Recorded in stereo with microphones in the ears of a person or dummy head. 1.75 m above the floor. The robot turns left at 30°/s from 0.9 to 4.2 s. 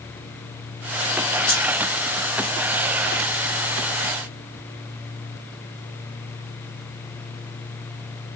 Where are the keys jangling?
45° left (ahead or behind), 1.5 m; by 1.6 s 40° left (ahead or behind), 1.5 m.